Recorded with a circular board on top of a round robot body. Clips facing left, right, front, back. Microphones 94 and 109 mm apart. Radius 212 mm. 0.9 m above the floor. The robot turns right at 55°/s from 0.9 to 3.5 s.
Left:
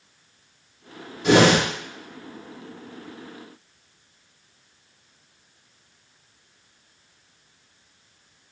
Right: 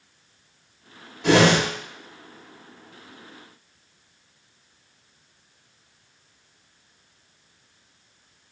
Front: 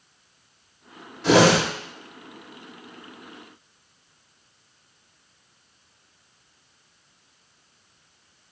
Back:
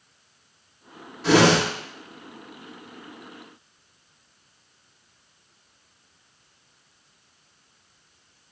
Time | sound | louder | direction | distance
1.2 | a whoosh | left 1 dB, front 1 dB | 90° right | 3 m